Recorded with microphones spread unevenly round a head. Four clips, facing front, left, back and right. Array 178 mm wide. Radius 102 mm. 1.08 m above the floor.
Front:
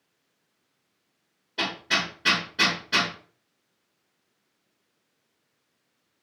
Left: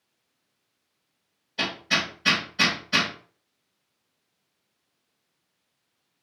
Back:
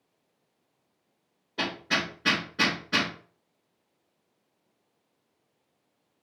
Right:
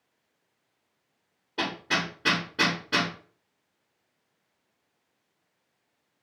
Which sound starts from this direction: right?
Hammering, at 1.6 s.